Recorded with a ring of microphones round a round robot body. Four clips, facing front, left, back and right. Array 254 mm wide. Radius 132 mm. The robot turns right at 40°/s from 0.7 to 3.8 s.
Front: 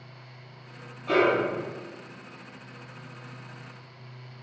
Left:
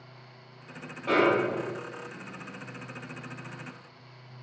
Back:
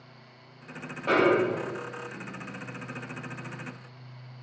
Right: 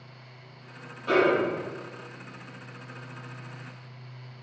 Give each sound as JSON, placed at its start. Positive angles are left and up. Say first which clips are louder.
{"t": 1.1, "sound": "a snare drum", "louder": "right 1 dB, even", "azimuth_deg": 165, "distance_m": 4.5}